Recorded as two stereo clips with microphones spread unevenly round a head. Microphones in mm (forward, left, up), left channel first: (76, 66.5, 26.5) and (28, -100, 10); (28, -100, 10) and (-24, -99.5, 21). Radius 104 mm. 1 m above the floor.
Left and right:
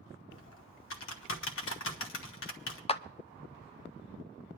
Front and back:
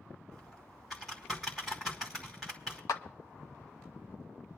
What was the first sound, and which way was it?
Typing on a keyboard, 95° left.